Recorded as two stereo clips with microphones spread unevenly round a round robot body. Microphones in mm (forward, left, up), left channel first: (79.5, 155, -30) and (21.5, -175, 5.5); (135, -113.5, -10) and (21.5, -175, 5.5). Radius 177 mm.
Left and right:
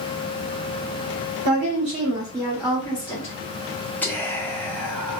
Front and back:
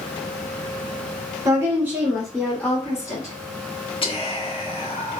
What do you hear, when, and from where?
1.4 s a woman speaking: 120° right, 1.2 m; by 3.3 s 20° left, 1.3 m
4.0 s whispering: straight ahead, 0.9 m